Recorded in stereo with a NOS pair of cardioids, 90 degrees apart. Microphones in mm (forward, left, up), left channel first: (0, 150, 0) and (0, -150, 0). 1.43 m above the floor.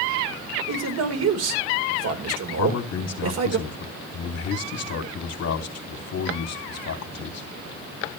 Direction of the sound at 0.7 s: 55° right.